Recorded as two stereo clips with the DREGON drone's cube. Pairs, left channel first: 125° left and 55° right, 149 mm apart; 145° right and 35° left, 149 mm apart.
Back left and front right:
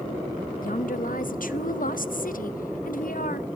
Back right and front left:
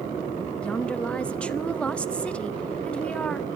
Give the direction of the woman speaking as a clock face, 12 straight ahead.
8 o'clock.